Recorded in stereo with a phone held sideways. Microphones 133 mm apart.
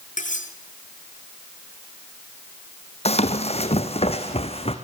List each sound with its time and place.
0.2 s cutlery clinking: 75° left (ahead or behind), 7 m
3.0 s running footsteps: 50° left (ahead or behind), 2.5 m